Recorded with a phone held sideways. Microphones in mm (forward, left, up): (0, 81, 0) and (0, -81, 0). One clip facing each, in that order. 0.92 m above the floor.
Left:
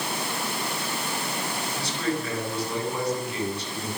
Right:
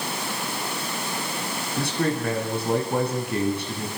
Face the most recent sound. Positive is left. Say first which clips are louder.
# right 5 dB
turn(degrees=-55)  # may be behind; listen again after turning